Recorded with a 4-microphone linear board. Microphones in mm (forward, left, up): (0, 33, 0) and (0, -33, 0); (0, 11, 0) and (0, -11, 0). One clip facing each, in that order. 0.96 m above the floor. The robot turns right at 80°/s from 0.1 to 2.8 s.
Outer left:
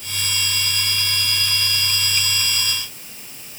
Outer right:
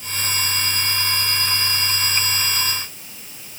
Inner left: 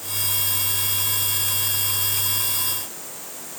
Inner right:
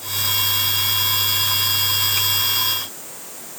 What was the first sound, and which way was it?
Only background noise.